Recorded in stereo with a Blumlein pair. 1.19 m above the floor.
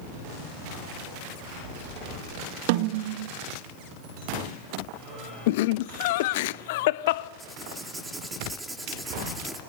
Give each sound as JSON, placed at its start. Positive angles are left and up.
{"t": 2.7, "sound": "a snare drum", "azimuth_deg": -50, "distance_m": 1.9}
{"t": 5.5, "sound": "laughter", "azimuth_deg": 50, "distance_m": 1.0}
{"t": 7.4, "sound": "writing", "azimuth_deg": -5, "distance_m": 6.5}